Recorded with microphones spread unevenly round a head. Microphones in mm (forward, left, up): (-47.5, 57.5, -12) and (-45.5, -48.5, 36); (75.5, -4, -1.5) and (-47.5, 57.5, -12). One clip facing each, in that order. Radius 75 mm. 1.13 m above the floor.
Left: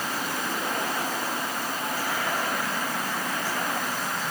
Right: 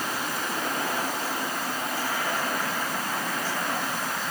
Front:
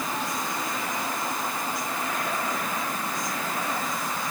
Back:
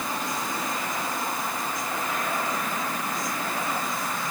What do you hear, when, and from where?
Only background noise.